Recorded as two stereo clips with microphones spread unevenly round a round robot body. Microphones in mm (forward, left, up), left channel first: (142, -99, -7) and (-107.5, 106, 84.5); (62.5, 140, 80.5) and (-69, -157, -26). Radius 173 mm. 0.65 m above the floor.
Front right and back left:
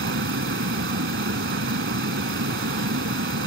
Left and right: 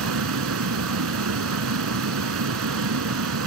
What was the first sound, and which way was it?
A vehicle, 160° right.